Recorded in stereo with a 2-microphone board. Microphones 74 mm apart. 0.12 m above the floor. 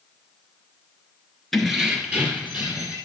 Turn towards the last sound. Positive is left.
turn(degrees=-25)  # may be behind; listen again after turning